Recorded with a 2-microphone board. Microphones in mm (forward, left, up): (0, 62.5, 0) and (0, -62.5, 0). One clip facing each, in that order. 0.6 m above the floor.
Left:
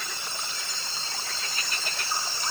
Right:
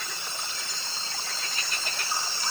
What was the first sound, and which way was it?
Only background noise.